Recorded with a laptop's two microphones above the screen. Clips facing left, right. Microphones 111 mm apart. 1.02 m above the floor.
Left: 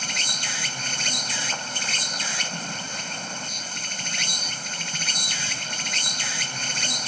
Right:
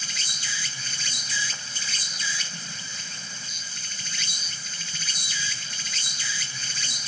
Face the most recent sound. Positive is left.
turn(degrees=65)  # may be behind; listen again after turning